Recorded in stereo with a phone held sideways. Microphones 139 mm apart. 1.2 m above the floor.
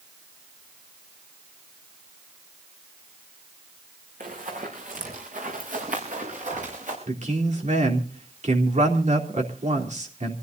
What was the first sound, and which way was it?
Running footsteps, 75° right (ahead or behind).